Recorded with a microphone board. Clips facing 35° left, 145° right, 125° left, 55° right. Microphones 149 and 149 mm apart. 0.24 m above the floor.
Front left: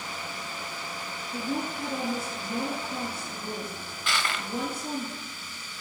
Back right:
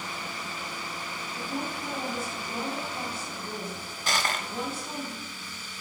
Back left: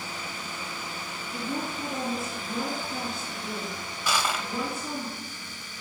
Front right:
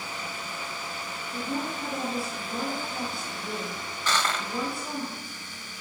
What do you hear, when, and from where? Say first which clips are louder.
1.3 s a woman speaking: front left 4 dB, front right 1 dB; 35° left, 3.5 m
4.1 s crushing: back right 2 dB, even; 160° right, 0.6 m